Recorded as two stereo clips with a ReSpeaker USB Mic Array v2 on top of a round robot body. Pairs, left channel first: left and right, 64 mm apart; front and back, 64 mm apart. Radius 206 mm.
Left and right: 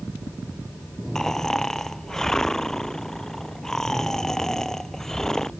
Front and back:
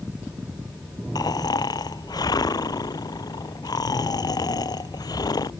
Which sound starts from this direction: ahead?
Snoring, at 1.1 s.